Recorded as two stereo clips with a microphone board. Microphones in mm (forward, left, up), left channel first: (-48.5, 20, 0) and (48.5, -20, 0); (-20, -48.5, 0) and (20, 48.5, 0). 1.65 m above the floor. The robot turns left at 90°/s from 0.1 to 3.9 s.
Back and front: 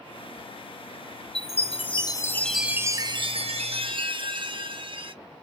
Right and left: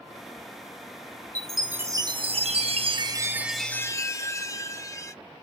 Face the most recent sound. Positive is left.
turn(degrees=-55)